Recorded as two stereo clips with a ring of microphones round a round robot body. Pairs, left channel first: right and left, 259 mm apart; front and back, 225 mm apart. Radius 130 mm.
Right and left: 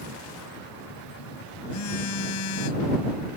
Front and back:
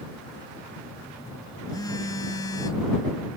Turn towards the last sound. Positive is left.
turn(degrees=-75)